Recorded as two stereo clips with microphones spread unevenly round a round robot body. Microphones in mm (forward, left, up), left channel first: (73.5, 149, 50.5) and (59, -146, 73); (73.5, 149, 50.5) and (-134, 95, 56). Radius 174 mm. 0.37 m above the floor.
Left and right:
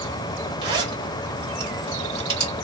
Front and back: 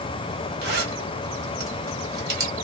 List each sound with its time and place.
0.6 s a zipper: 165° right, 1.8 m